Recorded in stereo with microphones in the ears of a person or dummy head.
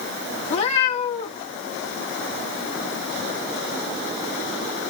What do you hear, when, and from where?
0.4 s a cat meowing: 40° left (ahead or behind), 2.0 m